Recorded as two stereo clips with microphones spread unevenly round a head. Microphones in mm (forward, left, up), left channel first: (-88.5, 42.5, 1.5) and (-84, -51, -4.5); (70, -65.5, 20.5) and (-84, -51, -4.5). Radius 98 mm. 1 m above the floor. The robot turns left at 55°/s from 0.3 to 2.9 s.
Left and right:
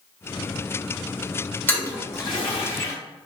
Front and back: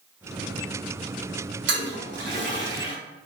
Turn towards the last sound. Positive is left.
turn(degrees=95)